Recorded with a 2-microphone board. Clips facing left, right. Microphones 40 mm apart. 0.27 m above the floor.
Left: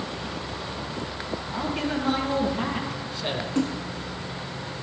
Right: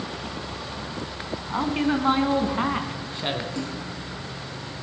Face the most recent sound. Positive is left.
turn(degrees=40)  # may be behind; listen again after turning